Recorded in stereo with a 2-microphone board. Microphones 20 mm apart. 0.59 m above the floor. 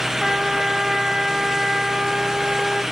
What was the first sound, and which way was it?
A trumpet, 10° right (ahead or behind).